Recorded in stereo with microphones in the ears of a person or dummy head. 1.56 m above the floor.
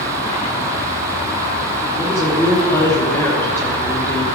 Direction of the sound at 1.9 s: 5° left (ahead or behind).